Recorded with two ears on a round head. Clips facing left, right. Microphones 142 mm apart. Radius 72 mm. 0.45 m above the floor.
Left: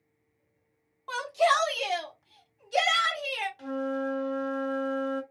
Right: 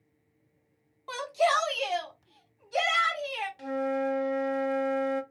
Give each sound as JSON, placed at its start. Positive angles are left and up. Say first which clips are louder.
{"t": 1.1, "sound": "a shout", "louder": "left 1 dB", "side_deg": -10, "distance_m": 1.0}
{"t": 3.6, "sound": "a flute", "louder": "right 3 dB", "side_deg": -15, "distance_m": 0.5}